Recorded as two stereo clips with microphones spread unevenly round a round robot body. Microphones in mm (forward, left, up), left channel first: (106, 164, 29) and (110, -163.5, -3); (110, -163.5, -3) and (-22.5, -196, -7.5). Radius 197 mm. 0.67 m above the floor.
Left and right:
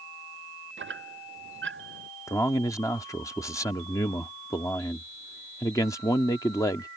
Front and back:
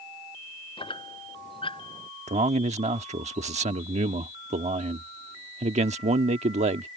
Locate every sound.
0.8 s a squeak: 35° right
2.3 s a man speaking: 175° left